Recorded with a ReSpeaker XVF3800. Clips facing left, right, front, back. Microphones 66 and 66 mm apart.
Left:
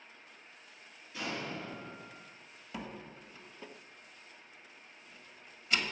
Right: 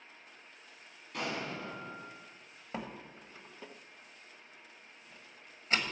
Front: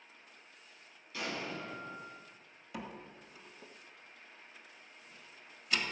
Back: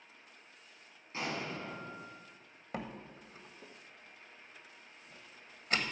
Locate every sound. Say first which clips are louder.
1.1 s an explosion: right 1 dB, back 1 dB; 120° right, 3.5 m
2.7 s a door slam: right 2 dB, back 2 dB; 140° right, 1.3 m